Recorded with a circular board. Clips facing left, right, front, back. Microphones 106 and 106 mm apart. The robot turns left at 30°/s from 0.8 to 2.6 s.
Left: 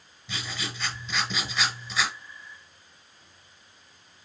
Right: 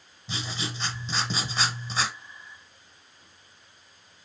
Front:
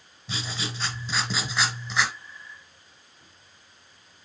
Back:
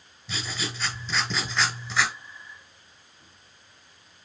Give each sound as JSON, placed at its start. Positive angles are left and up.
{"t": 0.3, "sound": "writing", "azimuth_deg": -50, "distance_m": 1.4}